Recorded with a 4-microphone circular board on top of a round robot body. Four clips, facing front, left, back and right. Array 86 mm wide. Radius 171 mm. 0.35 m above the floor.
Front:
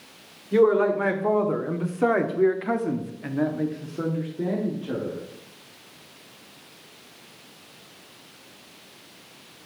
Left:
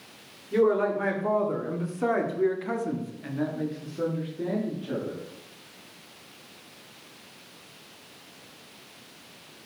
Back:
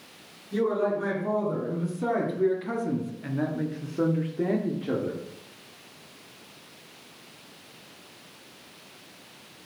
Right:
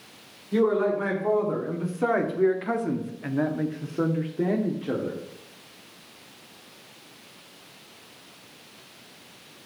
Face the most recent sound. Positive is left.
turn(degrees=-130)